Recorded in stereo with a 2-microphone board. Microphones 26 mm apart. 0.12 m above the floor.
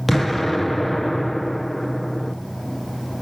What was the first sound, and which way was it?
An explosion, 5° left (ahead or behind).